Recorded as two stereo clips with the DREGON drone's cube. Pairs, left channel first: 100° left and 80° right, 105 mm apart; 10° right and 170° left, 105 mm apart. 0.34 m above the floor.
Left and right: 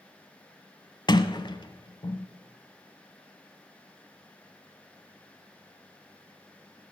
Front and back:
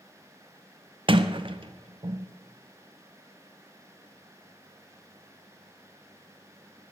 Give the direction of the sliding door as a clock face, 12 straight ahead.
7 o'clock.